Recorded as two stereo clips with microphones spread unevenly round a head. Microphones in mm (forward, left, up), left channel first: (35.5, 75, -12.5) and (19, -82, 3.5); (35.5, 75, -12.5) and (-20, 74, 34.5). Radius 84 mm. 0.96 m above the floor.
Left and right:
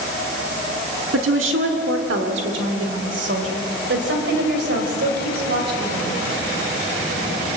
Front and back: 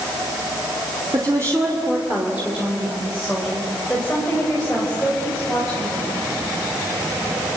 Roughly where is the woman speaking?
Right.